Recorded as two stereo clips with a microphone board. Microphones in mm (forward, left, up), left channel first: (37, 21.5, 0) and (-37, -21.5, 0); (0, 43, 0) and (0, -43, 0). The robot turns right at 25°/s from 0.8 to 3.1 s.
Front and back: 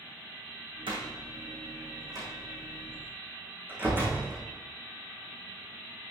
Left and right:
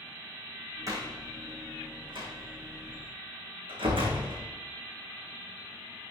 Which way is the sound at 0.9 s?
140° right.